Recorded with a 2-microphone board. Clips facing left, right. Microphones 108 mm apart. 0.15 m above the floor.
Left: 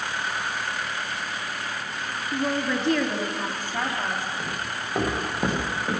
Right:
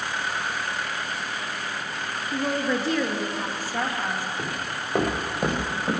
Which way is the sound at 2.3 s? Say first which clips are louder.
Even; 5° right (ahead or behind).